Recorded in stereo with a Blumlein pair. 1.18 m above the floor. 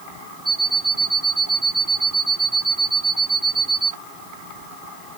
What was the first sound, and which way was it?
An alarm clock, 10° right.